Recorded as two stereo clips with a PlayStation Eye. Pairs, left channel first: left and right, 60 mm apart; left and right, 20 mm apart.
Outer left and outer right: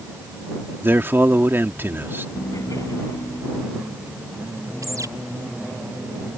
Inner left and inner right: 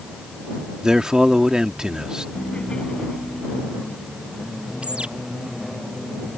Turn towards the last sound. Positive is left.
turn(degrees=-65)  # may be behind; listen again after turning